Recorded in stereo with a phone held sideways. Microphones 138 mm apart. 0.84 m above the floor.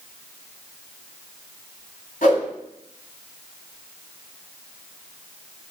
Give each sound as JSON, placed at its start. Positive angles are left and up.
{"t": 2.2, "sound": "a whoosh", "side_deg": 90, "distance_m": 5.5}